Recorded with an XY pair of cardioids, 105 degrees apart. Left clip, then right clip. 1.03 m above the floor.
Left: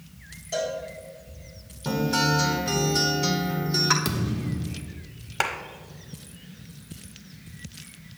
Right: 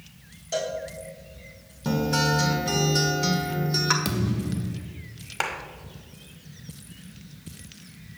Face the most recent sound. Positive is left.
turn(degrees=10)